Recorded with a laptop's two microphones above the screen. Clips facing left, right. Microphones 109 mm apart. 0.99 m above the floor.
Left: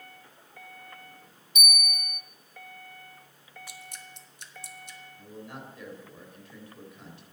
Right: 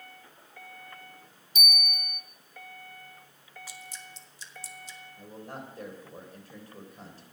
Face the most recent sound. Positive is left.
turn(degrees=-40)  # may be behind; listen again after turning